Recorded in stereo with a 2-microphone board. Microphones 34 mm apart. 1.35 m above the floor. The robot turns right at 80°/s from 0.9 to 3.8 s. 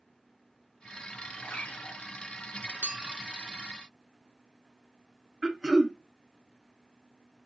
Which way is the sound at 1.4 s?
60° left.